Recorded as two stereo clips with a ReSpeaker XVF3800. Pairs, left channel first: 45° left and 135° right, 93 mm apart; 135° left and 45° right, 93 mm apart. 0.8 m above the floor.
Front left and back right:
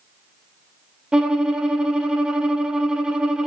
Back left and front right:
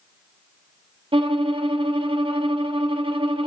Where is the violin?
55° right, 0.7 m.